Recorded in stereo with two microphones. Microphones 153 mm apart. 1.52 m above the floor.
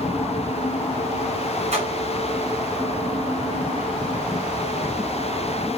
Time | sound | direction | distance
1.7 | a splash | 45° right (ahead or behind) | 4.5 m